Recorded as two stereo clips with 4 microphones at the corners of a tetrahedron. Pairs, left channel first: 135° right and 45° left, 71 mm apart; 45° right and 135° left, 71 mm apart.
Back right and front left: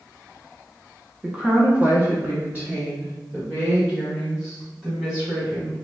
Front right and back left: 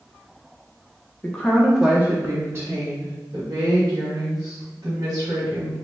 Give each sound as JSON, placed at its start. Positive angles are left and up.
{"t": 1.2, "sound": "a woman speaking", "azimuth_deg": -15, "distance_m": 0.8}